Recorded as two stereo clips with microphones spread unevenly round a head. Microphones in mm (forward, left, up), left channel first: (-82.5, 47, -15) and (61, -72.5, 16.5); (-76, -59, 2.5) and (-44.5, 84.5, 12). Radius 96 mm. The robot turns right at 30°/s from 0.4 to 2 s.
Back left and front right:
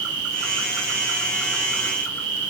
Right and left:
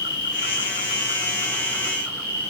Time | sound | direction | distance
0.0 | an insect | 50° right | 8 m